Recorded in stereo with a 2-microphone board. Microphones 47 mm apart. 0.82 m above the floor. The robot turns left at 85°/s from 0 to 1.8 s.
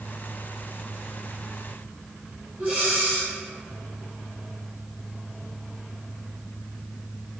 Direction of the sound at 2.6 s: 35° right (ahead or behind).